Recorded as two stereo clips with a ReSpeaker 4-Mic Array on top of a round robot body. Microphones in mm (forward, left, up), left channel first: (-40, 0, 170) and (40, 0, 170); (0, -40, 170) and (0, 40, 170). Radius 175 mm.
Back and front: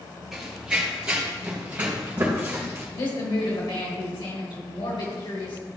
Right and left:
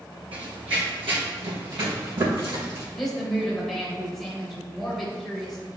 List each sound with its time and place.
0.3 s running footsteps: 85° left, 1.4 m; by 2.8 s 60° left, 3 m
2.9 s a woman speaking: 175° right, 3 m